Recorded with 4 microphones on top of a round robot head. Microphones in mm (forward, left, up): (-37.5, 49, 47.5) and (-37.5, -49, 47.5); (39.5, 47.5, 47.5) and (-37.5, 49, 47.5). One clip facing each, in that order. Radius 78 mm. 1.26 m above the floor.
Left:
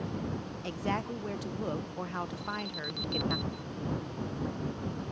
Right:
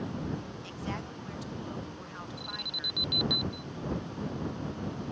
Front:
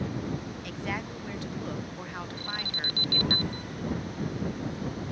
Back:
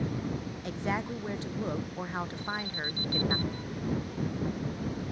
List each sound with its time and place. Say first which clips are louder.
0.6 s a woman speaking: left 5 dB, back 4 dB; 120° left
2.4 s an alarm: left 5 dB, back 1 dB; 10° right